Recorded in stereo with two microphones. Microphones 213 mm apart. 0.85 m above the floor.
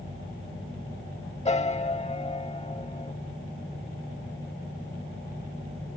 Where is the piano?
30° left (ahead or behind).